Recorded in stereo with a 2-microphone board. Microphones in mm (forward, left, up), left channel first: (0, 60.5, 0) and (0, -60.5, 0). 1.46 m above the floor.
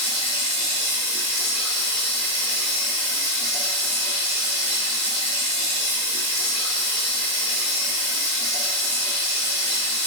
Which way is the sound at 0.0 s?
5° left (ahead or behind).